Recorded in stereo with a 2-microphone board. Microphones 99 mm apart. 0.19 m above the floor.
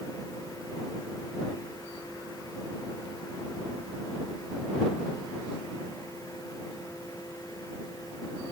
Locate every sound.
Only background noise.